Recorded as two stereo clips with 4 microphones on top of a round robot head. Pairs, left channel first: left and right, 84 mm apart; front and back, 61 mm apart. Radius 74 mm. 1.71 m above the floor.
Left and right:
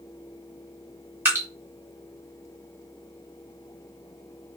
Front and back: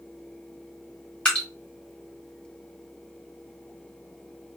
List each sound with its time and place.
1.2 s dripping: 65° right, 0.6 m